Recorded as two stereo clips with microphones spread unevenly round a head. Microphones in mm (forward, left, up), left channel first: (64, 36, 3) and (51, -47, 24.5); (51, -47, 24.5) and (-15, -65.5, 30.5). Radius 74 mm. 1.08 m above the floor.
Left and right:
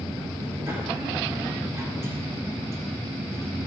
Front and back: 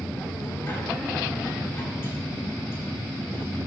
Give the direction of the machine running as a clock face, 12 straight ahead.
1 o'clock.